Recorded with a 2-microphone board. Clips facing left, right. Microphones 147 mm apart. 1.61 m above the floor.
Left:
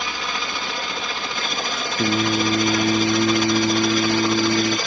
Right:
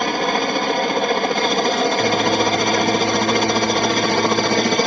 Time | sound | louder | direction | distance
0.0 | a helicopter | right 10 dB | 55° right (ahead or behind) | ?
2.0 | singing | right 3 dB | 25° left (ahead or behind) | ?